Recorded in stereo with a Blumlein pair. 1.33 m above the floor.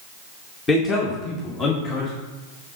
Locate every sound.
0.7 s a man speaking: 15° left, 1.5 m; by 2.1 s 35° left, 2.5 m